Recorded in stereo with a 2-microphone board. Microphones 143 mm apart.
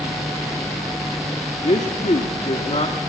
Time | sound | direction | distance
1.6 | a man speaking | 50° left (ahead or behind) | 1.8 m